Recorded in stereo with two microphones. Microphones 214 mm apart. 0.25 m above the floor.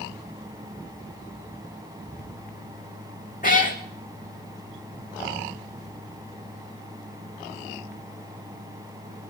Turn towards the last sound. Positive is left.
turn(degrees=40)  # may be behind; listen again after turning